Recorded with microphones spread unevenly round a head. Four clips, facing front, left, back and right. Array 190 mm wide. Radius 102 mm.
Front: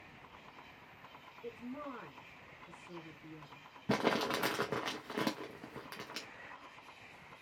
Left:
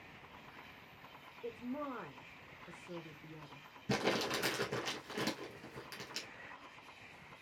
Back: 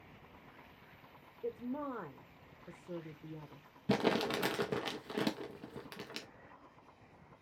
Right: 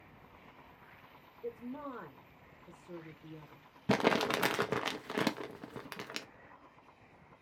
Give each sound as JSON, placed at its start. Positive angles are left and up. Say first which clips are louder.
{"t": 1.4, "sound": "a woman speaking", "louder": "even, back 5 dB", "azimuth_deg": 180, "distance_m": 0.7}
{"t": 3.9, "sound": "crumpling", "louder": "right 6 dB, back 1 dB", "azimuth_deg": -80, "distance_m": 0.6}